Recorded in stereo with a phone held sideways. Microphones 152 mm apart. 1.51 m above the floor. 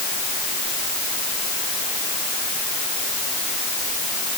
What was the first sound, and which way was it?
Only background noise.